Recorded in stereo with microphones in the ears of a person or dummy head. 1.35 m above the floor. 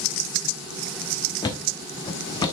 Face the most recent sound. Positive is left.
turn(degrees=25)  # may be behind; listen again after turning